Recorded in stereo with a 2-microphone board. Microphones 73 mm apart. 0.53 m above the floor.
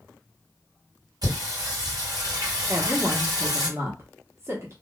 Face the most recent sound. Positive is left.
turn(degrees=-35)  # may be behind; listen again after turning